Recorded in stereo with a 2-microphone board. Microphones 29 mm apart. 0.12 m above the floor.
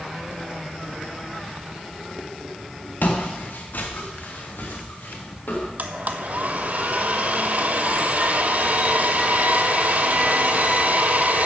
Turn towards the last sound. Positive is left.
turn(degrees=-55)  # may be behind; listen again after turning